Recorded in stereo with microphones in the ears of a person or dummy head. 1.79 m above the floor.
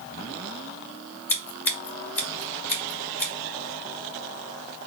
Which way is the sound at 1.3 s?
15° left (ahead or behind).